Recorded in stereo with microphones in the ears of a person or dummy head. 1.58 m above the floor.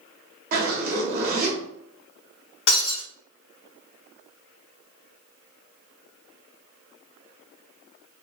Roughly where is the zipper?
Right.